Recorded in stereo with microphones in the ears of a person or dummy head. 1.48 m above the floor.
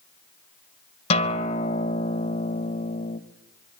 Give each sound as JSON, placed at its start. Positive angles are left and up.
{"t": 1.1, "sound": "a guitar", "side_deg": 35, "distance_m": 1.5}